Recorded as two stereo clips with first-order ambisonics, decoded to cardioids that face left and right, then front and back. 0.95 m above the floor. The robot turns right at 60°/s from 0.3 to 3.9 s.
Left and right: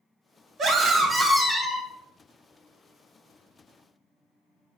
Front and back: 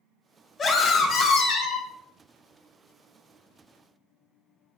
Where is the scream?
50° right, 0.7 m; by 1.9 s 30° left, 0.7 m.